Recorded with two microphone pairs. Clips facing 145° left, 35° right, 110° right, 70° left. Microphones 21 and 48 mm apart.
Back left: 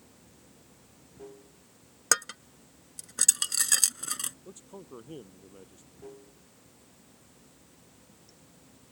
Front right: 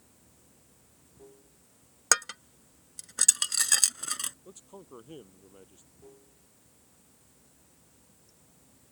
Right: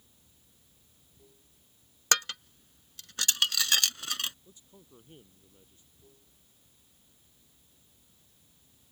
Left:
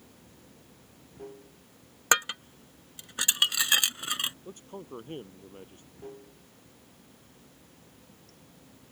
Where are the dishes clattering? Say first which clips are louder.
Front right 1 dB, left 4 dB; 35° left.